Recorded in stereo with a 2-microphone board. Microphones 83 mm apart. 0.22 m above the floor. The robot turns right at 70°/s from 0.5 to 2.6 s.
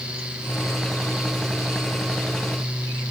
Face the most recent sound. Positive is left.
No sound to turn to.